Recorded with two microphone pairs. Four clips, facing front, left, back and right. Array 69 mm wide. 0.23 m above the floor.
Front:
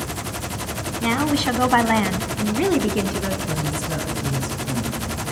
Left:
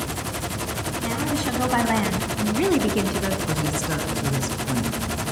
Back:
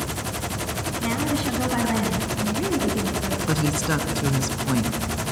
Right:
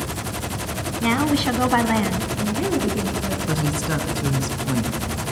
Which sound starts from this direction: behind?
A woman speaking, at 3.5 s.